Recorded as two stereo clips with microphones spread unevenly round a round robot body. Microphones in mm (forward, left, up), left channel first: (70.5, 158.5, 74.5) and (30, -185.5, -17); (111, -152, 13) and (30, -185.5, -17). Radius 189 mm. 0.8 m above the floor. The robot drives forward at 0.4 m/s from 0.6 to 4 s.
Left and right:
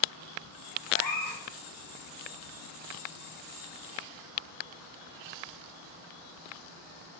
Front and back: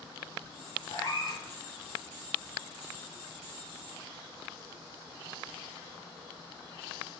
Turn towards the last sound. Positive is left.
turn(degrees=70)